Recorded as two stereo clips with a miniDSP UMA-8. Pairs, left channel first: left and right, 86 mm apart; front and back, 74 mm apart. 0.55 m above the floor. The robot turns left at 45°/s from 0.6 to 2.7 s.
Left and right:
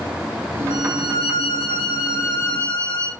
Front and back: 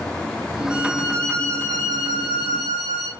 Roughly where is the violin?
Right.